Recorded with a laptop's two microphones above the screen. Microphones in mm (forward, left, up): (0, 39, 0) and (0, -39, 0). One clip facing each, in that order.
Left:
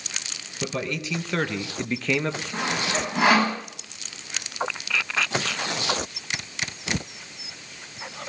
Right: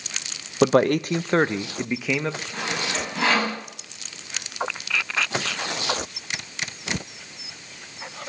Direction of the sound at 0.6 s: 65° right (ahead or behind).